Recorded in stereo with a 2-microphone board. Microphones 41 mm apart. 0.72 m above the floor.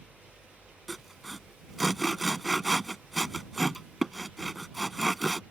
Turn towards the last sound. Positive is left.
turn(degrees=-5)  # may be behind; listen again after turning